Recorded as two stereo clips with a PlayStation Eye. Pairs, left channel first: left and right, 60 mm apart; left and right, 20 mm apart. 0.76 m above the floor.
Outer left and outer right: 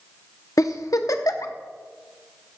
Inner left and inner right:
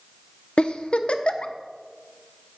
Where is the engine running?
I don't hear an engine running.